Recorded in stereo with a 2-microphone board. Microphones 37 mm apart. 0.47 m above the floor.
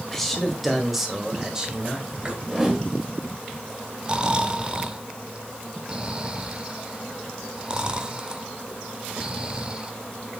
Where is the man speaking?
10° left (ahead or behind), 2 m; by 2.3 s 25° right (ahead or behind), 2.5 m.